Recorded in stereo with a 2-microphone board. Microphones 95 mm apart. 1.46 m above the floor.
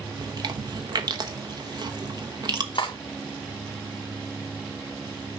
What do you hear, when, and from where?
0.2 s chewing: 45° right (ahead or behind), 1.1 m
2.8 s cutlery clinking: 60° left (ahead or behind), 1.8 m